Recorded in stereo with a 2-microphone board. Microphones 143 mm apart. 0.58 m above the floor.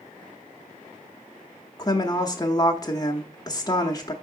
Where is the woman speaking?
25° left (ahead or behind), 0.8 m.